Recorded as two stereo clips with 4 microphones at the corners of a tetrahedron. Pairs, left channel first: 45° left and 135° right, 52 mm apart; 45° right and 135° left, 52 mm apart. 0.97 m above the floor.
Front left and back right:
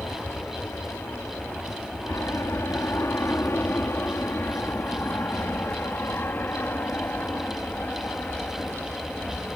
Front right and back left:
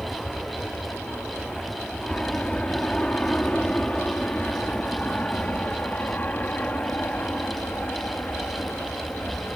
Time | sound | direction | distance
0.0 | an aircraft | 30° left | ?